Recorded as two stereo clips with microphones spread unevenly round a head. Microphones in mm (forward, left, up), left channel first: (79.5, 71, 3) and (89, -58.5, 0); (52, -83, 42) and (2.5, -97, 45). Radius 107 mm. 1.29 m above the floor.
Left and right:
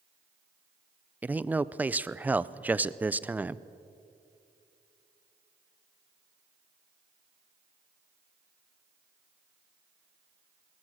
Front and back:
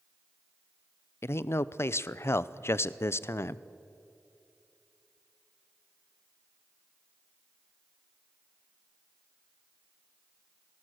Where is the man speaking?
10° right, 0.7 m.